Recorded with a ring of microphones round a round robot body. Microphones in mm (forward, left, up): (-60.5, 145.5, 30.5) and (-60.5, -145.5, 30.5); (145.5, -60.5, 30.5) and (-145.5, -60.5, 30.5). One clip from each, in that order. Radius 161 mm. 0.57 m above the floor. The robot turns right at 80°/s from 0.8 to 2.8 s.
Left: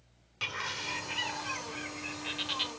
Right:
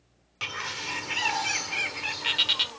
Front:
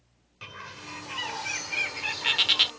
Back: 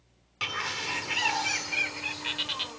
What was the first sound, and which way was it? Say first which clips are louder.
A bird: right 3 dB, back 11 dB; 165° right.